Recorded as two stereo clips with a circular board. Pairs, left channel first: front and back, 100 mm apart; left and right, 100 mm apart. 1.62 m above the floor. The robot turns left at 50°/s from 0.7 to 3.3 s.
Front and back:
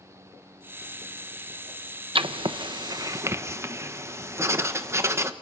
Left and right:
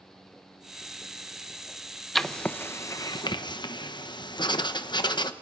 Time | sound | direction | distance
2.1 | writing | straight behind | 1.2 m